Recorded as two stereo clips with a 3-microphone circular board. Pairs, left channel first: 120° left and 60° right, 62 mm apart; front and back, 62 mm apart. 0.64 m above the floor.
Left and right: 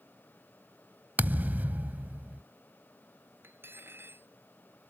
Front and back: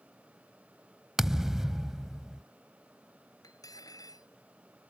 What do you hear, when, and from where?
1.2 s a thud: 100° right
3.4 s cutlery clinking: 10° right